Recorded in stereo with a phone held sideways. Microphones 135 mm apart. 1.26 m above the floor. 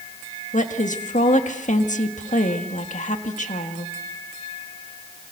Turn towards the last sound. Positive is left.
turn(degrees=65)  # may be behind; listen again after turning